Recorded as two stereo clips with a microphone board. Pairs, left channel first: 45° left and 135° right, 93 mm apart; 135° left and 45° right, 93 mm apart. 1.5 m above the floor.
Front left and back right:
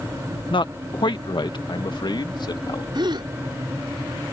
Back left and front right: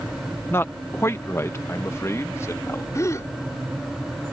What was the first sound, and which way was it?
A man speaking, 70° left.